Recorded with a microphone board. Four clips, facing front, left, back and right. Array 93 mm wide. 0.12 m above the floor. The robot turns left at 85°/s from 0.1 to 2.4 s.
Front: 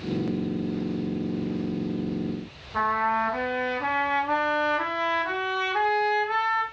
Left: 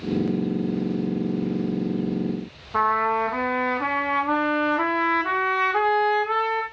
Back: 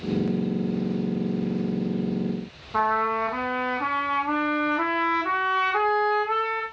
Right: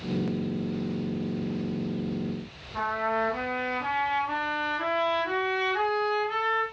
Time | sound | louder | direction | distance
2.7 | a trumpet | left 7 dB, back 1 dB | 120° left | 2 m